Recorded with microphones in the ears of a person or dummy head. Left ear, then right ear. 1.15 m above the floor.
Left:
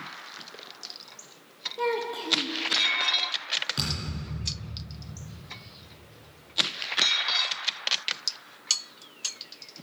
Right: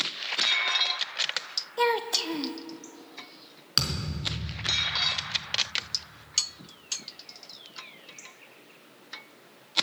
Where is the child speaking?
35° right (ahead or behind), 0.6 m.